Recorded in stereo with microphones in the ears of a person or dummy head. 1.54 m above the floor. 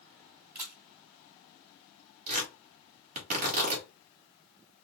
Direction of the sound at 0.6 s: 10° right (ahead or behind).